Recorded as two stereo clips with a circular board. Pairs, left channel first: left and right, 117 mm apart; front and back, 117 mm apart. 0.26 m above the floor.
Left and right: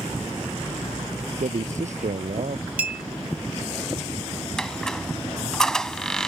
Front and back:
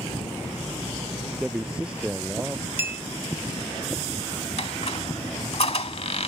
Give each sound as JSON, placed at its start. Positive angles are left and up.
{"t": 1.4, "sound": "a man speaking", "azimuth_deg": -100}
{"t": 2.8, "sound": "a clink", "azimuth_deg": -145}
{"t": 4.6, "sound": "a squeak", "azimuth_deg": 5}